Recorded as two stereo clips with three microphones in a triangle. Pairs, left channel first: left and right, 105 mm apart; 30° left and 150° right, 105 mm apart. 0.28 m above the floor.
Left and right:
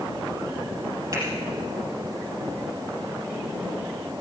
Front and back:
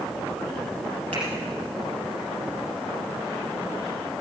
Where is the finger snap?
145° right, 6 m.